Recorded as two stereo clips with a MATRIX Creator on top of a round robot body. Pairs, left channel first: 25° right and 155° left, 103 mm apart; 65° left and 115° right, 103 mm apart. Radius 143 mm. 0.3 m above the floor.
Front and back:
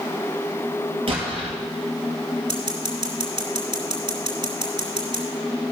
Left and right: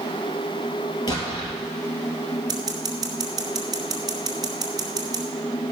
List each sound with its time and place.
1.1 s an explosion: 120° left, 2.5 m
2.5 s scissors: 160° right, 2 m